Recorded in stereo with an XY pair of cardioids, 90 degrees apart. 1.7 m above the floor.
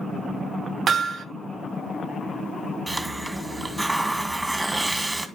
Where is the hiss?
15° right, 1.8 m.